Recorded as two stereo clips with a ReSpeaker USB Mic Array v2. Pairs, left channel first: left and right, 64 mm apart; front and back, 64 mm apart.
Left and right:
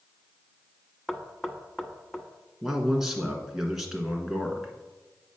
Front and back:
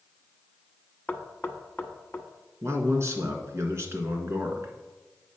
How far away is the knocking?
About 0.9 m.